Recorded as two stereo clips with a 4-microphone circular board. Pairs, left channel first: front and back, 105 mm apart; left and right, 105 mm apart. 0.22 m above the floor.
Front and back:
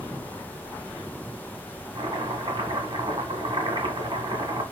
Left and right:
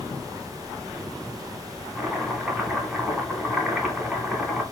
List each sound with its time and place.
1.9 s chopping: straight behind, 1.5 m